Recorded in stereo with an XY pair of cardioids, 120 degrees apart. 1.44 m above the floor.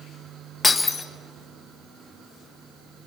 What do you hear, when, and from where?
0.6 s breaking glass: 25° left, 1.8 m